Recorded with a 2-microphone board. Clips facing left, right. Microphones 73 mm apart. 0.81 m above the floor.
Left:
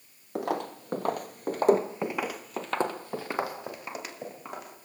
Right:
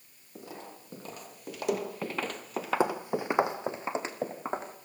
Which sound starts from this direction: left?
Footsteps, at 0.3 s.